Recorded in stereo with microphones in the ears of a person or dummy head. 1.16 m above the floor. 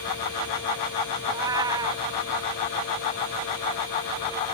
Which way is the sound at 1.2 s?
15° right (ahead or behind).